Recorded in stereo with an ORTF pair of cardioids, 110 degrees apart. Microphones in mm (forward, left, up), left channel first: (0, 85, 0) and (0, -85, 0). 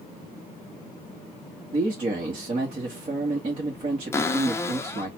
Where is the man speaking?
30° right, 1.6 m.